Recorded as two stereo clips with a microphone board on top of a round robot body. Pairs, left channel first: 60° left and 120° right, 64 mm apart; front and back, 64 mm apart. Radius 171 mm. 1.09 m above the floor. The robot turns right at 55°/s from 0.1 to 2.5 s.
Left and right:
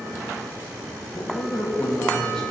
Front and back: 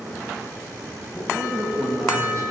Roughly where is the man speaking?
Left.